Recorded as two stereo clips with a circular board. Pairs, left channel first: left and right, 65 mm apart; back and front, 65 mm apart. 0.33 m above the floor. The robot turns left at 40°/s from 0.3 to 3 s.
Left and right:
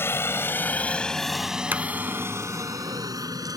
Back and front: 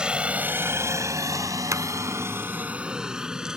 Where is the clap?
35° right; by 1.8 s 40° right.